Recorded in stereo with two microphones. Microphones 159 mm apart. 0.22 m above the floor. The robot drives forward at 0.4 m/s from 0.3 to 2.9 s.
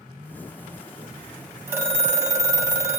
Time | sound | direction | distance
1.7 | a phone ringing | 15° right (ahead or behind) | 0.7 m